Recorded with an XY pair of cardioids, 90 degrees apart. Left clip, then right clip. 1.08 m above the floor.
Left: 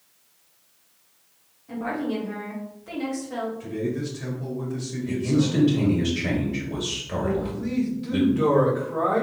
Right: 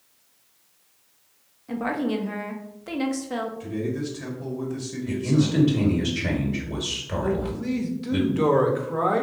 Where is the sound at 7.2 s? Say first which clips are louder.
Right 1 dB; 45° right, 1.2 m.